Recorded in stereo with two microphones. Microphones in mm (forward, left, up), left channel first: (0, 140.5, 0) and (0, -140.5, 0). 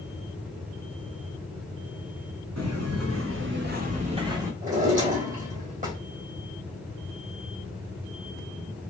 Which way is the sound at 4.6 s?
30° right (ahead or behind).